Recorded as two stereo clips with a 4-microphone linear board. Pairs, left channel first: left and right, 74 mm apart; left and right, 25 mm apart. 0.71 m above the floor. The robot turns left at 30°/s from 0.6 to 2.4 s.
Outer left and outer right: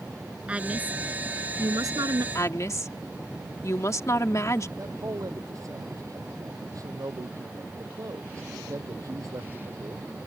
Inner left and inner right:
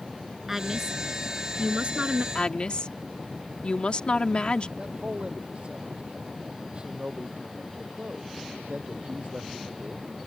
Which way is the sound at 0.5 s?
15° right.